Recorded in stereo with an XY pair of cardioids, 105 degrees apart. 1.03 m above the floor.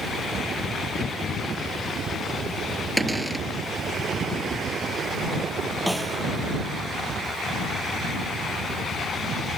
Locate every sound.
3.0 s a cupboard door: 10° right
5.9 s a snare drum: straight ahead